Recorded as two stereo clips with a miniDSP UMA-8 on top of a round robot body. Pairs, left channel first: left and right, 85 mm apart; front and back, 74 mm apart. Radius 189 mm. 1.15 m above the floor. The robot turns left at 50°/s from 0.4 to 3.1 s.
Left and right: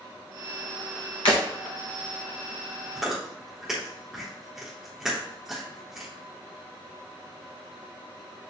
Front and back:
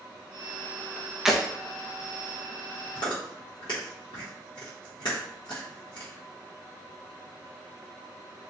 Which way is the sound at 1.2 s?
100° left.